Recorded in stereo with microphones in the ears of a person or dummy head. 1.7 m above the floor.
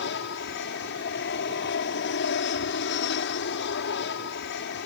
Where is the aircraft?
60° left (ahead or behind).